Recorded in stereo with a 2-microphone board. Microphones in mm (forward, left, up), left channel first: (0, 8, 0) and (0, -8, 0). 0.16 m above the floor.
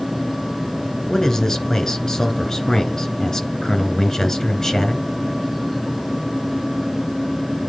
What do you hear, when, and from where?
1.1 s a man speaking: 35° left (ahead or behind), 2 m